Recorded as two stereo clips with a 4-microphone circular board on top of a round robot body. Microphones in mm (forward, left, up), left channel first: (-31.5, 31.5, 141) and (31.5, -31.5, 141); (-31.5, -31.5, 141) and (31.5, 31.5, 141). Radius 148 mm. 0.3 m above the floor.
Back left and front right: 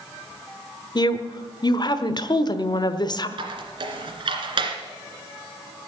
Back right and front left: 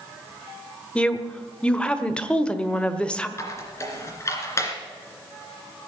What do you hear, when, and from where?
0.9 s a woman speaking: 150° left, 1.4 m
3.4 s a squeak: 75° right, 2.5 m